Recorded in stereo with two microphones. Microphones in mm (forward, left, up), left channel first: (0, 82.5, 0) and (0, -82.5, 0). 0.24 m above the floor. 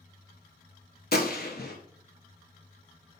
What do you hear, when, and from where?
1.1 s a gunshot: 75° left (ahead or behind), 0.7 m